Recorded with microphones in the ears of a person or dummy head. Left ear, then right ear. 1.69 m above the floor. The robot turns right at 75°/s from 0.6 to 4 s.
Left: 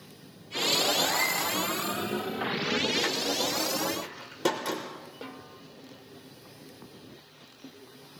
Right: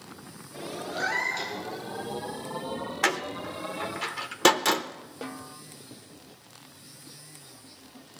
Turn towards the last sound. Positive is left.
turn(degrees=-20)  # may be behind; listen again after turning